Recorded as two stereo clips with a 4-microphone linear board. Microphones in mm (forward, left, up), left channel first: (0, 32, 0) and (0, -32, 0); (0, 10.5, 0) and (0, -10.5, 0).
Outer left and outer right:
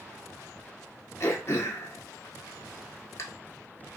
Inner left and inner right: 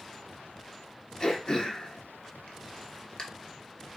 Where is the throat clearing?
45° left (ahead or behind), 0.9 m.